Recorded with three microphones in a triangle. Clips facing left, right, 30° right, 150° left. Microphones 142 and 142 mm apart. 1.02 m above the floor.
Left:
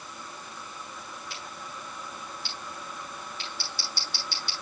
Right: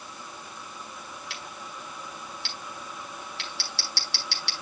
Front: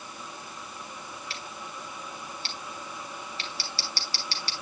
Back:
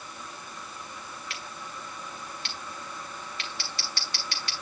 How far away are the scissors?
About 3 m.